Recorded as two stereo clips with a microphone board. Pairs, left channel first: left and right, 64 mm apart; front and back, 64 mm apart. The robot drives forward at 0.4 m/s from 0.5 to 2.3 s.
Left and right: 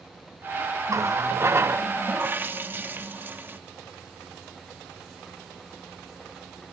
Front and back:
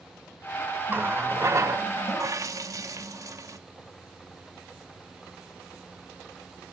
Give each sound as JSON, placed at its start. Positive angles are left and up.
{"t": 0.9, "sound": "a running tap", "azimuth_deg": -125, "distance_m": 0.7}